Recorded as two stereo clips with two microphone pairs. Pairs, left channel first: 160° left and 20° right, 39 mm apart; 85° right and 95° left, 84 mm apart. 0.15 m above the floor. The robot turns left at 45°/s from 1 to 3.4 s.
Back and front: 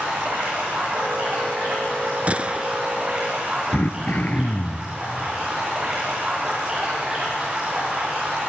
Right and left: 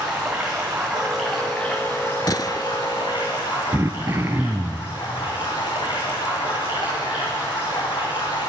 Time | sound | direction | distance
0.0 | running water | 15° left | 8 m
2.3 | a gunshot | 60° right | 0.6 m
3.7 | throat clearing | 140° left | 1.1 m